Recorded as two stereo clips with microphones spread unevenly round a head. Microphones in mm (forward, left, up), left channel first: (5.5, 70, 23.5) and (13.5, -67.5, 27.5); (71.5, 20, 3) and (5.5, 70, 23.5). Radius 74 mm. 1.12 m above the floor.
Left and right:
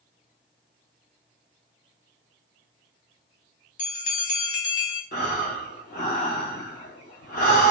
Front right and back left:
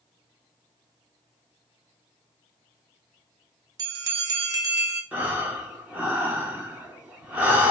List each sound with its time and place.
3.8 s a bell: 95° left, 0.7 m
5.1 s breathing: 90° left, 0.9 m